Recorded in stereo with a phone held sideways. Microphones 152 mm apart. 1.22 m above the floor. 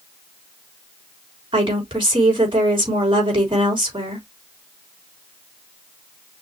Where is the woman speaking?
35° right (ahead or behind), 3.5 m.